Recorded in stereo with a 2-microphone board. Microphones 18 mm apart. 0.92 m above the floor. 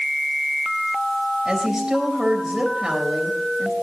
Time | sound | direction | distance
1.4 | a woman speaking | 35° right (ahead or behind) | 4 m